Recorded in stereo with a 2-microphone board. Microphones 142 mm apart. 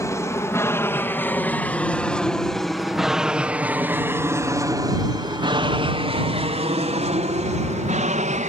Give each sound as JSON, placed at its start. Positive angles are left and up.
{"t": 0.0, "sound": "an aircraft", "side_deg": 20}